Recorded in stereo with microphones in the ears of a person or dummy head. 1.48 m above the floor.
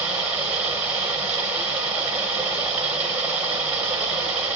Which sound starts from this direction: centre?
Running water, at 0.0 s.